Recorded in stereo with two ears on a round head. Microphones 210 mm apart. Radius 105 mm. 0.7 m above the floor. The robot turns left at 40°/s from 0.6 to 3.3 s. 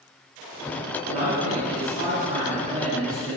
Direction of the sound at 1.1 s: 105° right.